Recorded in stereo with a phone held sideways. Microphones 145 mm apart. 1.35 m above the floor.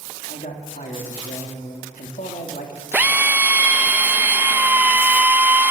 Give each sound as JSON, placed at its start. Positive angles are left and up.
{"t": 0.3, "sound": "a man speaking", "side_deg": 70, "distance_m": 3.0}
{"t": 2.9, "sound": "a drill", "side_deg": -15, "distance_m": 0.7}